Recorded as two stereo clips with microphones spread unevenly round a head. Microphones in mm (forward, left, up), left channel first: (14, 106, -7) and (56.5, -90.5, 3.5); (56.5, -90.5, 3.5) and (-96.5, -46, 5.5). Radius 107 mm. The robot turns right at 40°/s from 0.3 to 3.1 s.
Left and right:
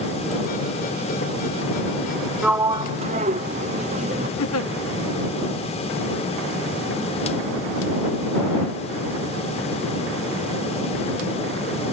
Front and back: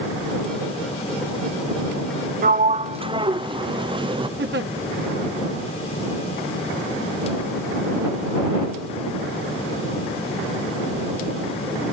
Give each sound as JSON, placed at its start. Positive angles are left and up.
{"t": 2.4, "sound": "a sliding door", "azimuth_deg": -165}
{"t": 4.4, "sound": "a giggle", "azimuth_deg": 125}